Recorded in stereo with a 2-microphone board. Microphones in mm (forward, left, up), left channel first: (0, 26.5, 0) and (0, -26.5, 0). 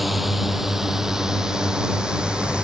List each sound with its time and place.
0.0 s a drone: 5° right (ahead or behind); by 2.6 s 20° right (ahead or behind)